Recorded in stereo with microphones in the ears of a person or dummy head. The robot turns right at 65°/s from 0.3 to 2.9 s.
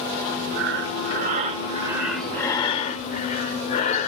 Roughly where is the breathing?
Right.